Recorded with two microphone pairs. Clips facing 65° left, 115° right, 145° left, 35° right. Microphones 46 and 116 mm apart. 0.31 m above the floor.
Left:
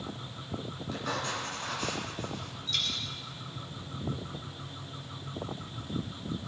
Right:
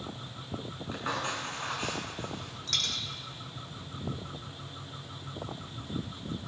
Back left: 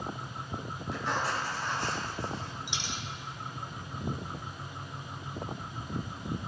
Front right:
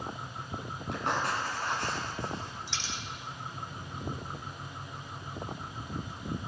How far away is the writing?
About 2.5 m.